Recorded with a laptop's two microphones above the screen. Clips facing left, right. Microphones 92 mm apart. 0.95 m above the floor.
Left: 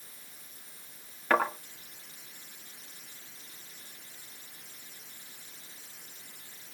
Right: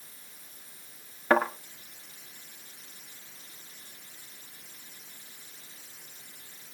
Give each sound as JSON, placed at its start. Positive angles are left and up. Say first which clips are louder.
{"t": 1.3, "sound": "a thud", "louder": "right 3 dB", "side_deg": -20, "distance_m": 7.0}